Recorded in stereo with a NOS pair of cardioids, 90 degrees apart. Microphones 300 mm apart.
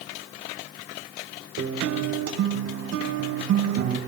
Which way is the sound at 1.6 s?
55° right.